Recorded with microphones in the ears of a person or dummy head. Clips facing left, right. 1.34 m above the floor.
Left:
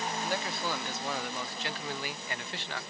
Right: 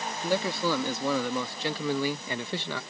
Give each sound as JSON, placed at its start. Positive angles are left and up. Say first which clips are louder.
{"t": 0.2, "sound": "a man speaking", "louder": "right 11 dB", "side_deg": -80}